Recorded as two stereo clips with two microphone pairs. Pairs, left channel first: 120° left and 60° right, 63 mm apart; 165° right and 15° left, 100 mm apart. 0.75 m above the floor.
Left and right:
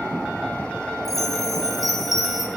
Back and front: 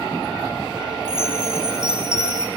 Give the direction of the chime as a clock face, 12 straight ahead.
9 o'clock.